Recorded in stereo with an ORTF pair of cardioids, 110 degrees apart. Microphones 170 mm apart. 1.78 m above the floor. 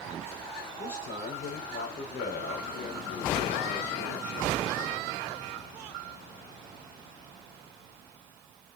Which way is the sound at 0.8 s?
50° left.